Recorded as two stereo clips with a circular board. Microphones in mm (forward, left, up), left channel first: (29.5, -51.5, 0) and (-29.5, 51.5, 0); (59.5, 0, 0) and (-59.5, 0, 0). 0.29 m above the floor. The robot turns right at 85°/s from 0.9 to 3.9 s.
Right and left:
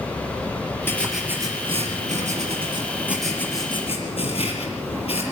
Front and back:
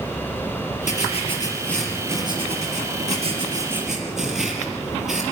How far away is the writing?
About 5 m.